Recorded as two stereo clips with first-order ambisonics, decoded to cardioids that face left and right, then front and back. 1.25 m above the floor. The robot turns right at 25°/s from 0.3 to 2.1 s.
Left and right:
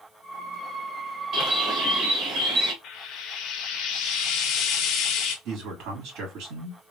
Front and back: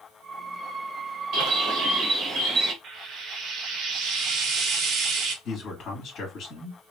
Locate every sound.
1.3 s a bird: 145° right, 1.3 m; by 2.7 s 130° right, 1.3 m
2.8 s frying: 130° left, 0.9 m
5.5 s a man speaking: 60° right, 2 m